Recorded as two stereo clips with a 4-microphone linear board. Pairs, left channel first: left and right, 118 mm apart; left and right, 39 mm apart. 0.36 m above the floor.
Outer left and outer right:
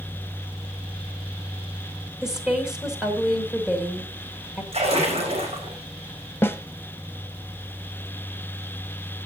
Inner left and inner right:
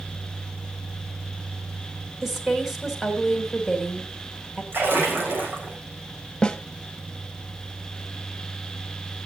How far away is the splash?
About 5 m.